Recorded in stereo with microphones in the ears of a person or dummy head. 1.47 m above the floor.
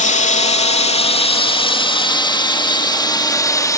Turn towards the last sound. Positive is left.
turn(degrees=15)  # may be behind; listen again after turning